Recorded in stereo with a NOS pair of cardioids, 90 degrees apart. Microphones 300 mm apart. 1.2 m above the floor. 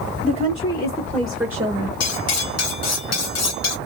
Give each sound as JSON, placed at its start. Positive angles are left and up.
{"t": 0.2, "sound": "a woman speaking", "azimuth_deg": 25, "distance_m": 1.6}
{"t": 2.0, "sound": "cutlery clinking", "azimuth_deg": 65, "distance_m": 0.9}